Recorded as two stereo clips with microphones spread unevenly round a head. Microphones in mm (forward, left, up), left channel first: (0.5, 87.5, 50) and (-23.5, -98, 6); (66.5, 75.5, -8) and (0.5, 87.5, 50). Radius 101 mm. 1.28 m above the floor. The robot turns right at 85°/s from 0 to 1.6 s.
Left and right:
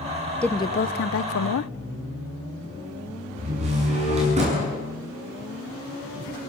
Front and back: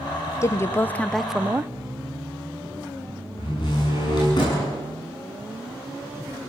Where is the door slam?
40° right, 7.5 m.